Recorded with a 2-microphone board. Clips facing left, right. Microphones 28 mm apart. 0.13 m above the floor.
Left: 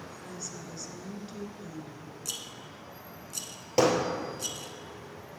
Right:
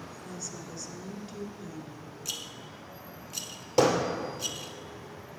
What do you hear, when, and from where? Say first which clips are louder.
0.2 s a woman speaking: right 1 dB; 10° left (ahead or behind), 1.4 m
2.2 s a rattle: right 2 dB; 15° right (ahead or behind), 0.9 m
3.8 s hammering: even; 15° left (ahead or behind), 2.5 m